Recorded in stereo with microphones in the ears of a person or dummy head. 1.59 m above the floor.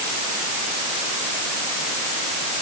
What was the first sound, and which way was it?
Only background noise.